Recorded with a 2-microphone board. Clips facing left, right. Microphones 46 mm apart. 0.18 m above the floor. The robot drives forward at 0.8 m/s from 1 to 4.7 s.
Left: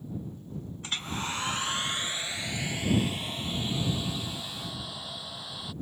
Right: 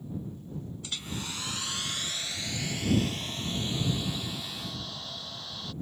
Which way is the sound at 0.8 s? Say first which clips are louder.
Left 6 dB; 45° left (ahead or behind).